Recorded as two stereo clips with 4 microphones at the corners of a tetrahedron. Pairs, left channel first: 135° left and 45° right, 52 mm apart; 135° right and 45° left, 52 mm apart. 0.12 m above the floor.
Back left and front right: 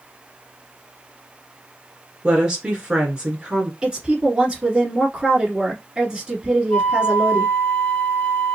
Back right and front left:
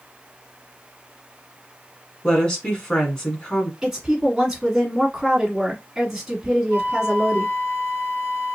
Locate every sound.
2.2 s a woman speaking: 85° right, 1.2 m
3.8 s a woman speaking: 15° right, 1.6 m
6.7 s a flute: 160° right, 2.0 m